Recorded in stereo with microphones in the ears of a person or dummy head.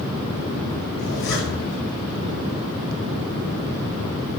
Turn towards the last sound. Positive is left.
turn(degrees=70)  # may be behind; listen again after turning